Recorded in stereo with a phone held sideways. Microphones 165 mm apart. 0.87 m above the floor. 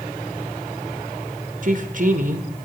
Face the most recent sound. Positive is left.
turn(degrees=-55)  # may be behind; listen again after turning